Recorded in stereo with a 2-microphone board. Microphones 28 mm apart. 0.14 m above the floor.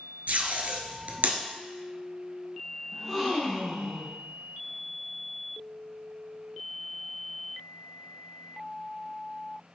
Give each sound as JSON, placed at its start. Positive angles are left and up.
{"t": 0.3, "sound": "tape being pulled", "side_deg": -55, "distance_m": 1.2}
{"t": 2.9, "sound": "a gasp", "side_deg": -5, "distance_m": 2.0}